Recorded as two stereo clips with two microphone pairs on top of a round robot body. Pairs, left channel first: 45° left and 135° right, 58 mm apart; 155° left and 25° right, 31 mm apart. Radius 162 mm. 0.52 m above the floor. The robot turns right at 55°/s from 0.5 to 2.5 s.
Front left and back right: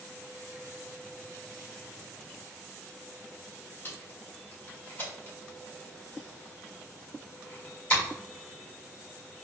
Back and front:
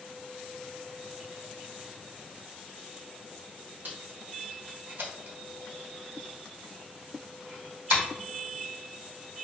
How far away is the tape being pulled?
About 1.6 m.